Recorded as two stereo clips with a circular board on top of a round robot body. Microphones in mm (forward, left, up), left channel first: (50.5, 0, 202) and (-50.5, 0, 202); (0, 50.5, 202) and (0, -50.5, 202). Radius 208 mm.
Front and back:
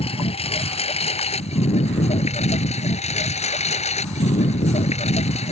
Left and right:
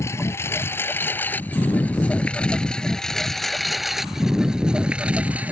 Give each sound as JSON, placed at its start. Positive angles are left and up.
{"t": 0.0, "sound": "a lawn mower", "azimuth_deg": 25}